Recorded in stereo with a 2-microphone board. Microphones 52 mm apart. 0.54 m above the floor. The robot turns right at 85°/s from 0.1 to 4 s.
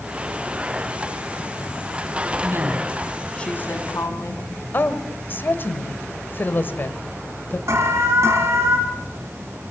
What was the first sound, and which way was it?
A woman speaking, 65° right.